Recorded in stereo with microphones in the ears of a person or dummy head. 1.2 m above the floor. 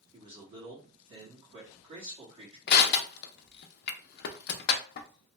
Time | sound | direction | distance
0.1 | a man speaking | 35° right (ahead or behind) | 1.6 m
2.7 | crushing | 55° left (ahead or behind) | 0.5 m